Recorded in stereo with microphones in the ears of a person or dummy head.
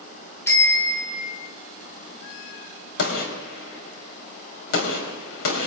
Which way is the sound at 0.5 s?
15° left (ahead or behind).